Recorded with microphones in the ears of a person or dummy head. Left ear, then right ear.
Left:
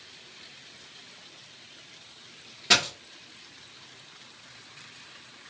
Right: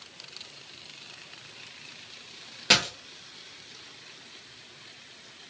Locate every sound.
2.7 s a dropped coin: 25° right (ahead or behind), 0.9 m